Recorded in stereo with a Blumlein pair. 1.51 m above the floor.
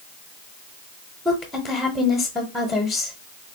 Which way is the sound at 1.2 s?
5° left.